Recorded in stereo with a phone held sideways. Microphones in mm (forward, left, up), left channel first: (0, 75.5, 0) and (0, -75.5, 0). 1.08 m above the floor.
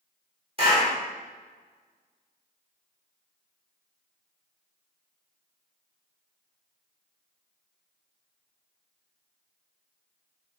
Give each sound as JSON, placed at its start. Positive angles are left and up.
{"t": 0.6, "sound": "a clap", "side_deg": -40, "distance_m": 2.0}